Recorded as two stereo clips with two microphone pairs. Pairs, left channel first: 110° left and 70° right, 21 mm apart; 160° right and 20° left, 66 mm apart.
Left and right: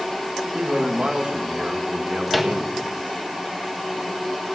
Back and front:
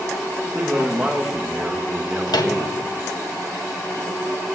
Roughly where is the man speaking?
Ahead right.